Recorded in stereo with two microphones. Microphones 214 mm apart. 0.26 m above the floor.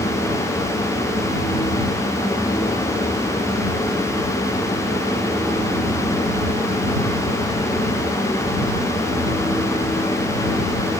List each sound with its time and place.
Only background noise.